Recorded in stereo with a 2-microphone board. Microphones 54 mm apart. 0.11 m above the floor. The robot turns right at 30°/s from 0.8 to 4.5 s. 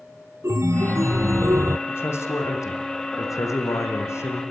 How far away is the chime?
About 0.6 m.